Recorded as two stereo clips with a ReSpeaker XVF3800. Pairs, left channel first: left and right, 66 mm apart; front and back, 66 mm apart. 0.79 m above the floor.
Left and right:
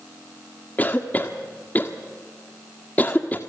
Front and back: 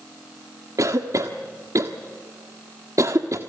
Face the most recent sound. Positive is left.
turn(degrees=150)